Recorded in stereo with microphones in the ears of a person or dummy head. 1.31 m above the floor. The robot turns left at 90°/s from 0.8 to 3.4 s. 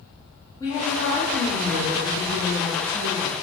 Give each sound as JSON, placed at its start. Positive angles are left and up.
{"t": 0.6, "sound": "a woman speaking", "azimuth_deg": 20, "distance_m": 0.8}